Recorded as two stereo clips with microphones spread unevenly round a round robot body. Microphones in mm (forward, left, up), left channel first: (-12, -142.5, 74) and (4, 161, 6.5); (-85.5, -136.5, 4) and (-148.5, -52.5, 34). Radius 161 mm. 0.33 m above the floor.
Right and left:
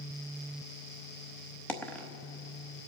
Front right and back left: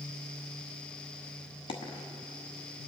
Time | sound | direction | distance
1.7 | a dropped coin | 5° right | 0.9 m